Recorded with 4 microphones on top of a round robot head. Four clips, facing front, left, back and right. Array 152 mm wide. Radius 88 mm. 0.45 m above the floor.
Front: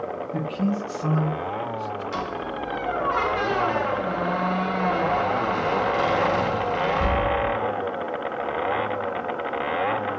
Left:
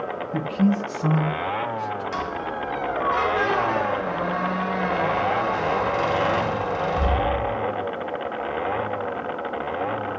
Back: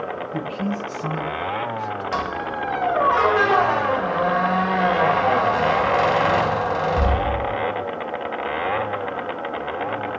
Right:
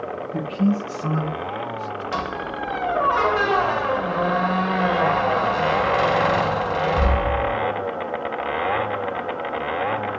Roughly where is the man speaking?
Left.